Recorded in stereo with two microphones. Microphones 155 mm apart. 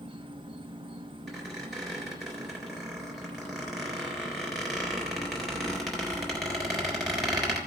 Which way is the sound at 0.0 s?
35° right (ahead or behind).